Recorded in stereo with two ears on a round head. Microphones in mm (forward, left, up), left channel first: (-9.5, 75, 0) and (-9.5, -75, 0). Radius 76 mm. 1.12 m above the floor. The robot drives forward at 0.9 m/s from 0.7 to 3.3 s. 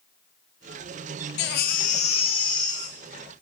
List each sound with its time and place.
1.4 s a baby crying: 70° left (ahead or behind), 0.6 m; by 3.4 s 20° left (ahead or behind), 1.9 m